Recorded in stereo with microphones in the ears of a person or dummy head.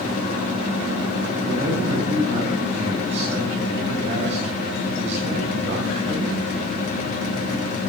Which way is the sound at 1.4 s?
45° right (ahead or behind).